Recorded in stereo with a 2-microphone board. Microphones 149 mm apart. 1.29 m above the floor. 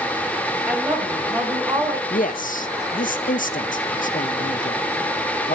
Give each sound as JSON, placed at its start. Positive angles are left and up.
{"t": 0.7, "sound": "a woman speaking", "side_deg": -5, "distance_m": 6.0}
{"t": 2.1, "sound": "a man speaking", "side_deg": 60, "distance_m": 1.1}